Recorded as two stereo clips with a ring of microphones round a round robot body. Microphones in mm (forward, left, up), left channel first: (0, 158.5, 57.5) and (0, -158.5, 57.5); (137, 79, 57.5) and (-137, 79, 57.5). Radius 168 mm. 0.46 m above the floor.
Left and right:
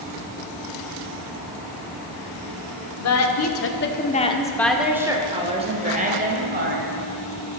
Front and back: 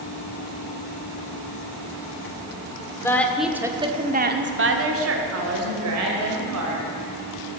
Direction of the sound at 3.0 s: 80° left.